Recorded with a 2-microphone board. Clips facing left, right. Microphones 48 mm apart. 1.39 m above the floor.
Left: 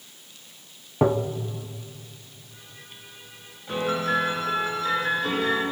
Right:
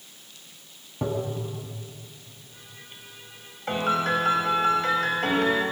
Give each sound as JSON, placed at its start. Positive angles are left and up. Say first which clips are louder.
{"t": 1.0, "sound": "tapping", "louder": "left 6 dB", "side_deg": 45, "distance_m": 1.3}
{"t": 3.7, "sound": "a piano", "louder": "right 1 dB", "side_deg": -55, "distance_m": 5.5}